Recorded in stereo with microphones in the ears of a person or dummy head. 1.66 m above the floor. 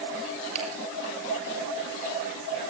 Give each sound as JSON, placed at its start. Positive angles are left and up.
{"t": 0.6, "sound": "a finger snap", "side_deg": -40, "distance_m": 9.5}